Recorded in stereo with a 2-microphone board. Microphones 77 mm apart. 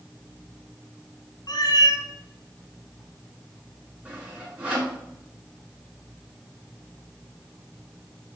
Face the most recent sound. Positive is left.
turn(degrees=-15)  # may be behind; listen again after turning